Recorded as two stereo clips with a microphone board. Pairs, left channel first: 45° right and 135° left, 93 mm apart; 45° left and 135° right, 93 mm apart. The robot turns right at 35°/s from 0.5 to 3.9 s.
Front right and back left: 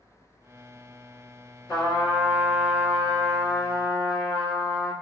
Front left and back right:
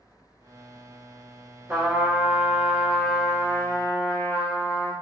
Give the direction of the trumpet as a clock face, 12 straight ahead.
3 o'clock.